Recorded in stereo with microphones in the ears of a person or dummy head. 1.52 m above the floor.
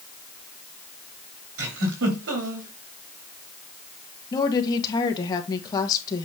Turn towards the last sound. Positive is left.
turn(degrees=25)  # may be behind; listen again after turning